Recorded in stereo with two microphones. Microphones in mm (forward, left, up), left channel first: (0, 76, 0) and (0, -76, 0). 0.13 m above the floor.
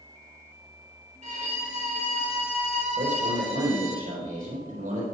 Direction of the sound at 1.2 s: 55° right (ahead or behind).